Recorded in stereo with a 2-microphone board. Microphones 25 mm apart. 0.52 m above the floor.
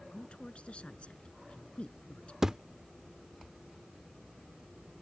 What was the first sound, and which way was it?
A woman speaking, 55° left (ahead or behind).